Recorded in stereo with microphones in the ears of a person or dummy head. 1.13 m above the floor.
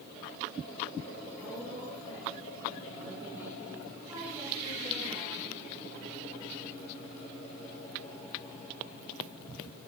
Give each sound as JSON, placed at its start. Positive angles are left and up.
{"t": 1.4, "sound": "a woman speaking", "side_deg": -15, "distance_m": 7.0}